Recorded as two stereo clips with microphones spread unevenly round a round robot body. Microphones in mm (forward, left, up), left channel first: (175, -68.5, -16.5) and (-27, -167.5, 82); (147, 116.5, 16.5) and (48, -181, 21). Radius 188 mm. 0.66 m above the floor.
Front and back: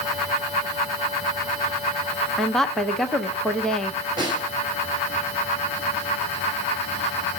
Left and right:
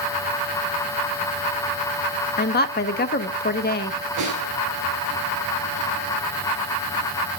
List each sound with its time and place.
2.4 s a woman speaking: 60° left, 0.7 m
4.2 s a snare drum: 80° right, 3.5 m